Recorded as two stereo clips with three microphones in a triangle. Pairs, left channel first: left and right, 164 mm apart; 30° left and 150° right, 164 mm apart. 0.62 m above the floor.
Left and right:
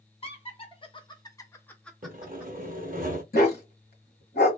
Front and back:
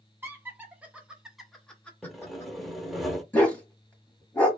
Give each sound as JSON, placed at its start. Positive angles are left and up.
{"t": 0.2, "sound": "laughter", "azimuth_deg": 135, "distance_m": 1.0}
{"t": 2.0, "sound": "sawing", "azimuth_deg": -60, "distance_m": 0.6}
{"t": 3.3, "sound": "a dog barking", "azimuth_deg": 110, "distance_m": 1.0}